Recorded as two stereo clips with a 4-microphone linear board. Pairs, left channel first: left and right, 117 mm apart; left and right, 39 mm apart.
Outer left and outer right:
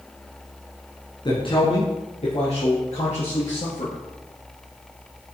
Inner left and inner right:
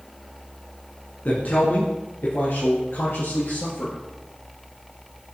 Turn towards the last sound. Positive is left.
turn(degrees=70)  # may be behind; listen again after turning